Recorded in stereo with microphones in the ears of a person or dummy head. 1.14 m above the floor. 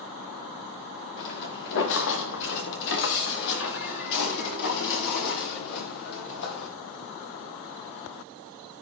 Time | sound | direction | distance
1.2 | footsteps | 60° left (ahead or behind) | 4.5 m